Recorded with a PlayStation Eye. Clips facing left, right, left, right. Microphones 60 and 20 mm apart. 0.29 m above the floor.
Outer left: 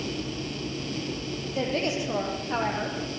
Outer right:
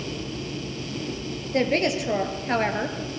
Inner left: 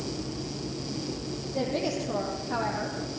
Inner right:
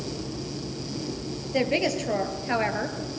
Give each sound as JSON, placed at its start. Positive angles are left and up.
{"t": 1.5, "sound": "a woman speaking", "side_deg": -75, "distance_m": 5.0}